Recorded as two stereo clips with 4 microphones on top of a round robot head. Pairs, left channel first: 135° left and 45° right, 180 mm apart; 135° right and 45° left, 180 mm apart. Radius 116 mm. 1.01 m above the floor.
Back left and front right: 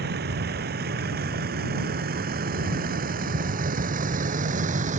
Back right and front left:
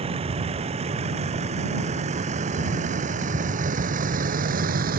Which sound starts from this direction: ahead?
A vehicle, at 0.0 s.